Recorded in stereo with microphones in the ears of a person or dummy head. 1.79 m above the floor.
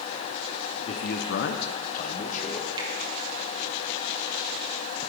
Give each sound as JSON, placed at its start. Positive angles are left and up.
{"t": 0.9, "sound": "a man speaking", "side_deg": 35, "distance_m": 1.0}
{"t": 2.8, "sound": "a finger snap", "side_deg": -30, "distance_m": 1.6}